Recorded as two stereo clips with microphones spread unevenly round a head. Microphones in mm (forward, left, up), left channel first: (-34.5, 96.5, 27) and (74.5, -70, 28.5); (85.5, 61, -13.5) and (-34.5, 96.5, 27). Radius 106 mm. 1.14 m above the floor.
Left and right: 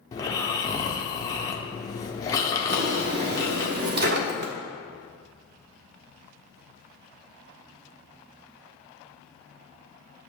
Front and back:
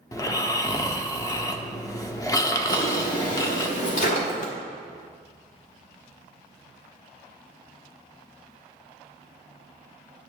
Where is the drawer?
55° right, 0.9 m.